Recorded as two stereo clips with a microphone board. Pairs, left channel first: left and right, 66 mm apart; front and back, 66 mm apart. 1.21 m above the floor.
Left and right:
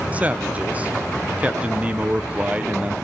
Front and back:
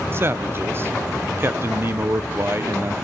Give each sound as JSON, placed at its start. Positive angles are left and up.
{"t": 0.1, "sound": "a man speaking", "azimuth_deg": -145, "distance_m": 0.7}